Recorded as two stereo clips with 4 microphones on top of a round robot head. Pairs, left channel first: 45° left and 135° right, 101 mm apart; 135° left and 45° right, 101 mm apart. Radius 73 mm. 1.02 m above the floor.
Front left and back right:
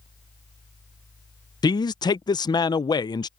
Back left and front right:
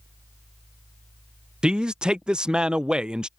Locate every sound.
1.6 s a man speaking: 35° left